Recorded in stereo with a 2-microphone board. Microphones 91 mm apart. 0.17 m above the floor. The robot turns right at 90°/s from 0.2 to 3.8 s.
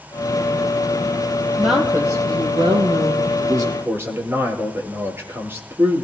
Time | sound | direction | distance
1.6 | a woman speaking | 175° left | 4 m
3.4 | a man speaking | 65° right | 4.5 m